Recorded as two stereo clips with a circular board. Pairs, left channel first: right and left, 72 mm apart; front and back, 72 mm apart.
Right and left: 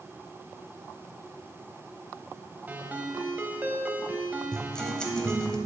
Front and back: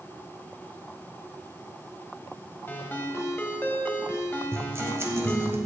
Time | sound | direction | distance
2.7 | a ringtone | 40° left | 0.8 m
4.5 | a guitar | 165° right | 1.0 m